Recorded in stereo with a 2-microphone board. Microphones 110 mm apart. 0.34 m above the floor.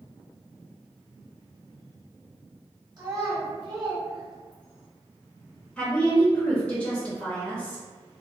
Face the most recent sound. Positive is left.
turn(degrees=10)  # may be behind; listen again after turning